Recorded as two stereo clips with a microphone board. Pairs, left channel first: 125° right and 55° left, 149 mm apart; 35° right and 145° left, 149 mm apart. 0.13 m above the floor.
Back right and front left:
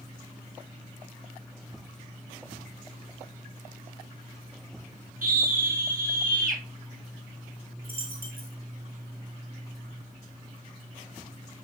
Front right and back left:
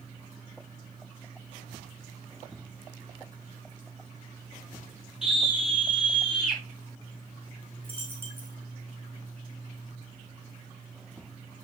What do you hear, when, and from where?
5.2 s a scream: 60° left, 3 m
7.8 s a dropped coin: 70° left, 3 m